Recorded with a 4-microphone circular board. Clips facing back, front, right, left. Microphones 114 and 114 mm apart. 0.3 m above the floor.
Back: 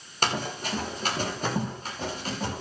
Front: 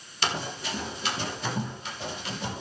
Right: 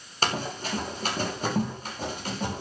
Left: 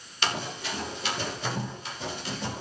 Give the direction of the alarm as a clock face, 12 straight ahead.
I don't hear an alarm.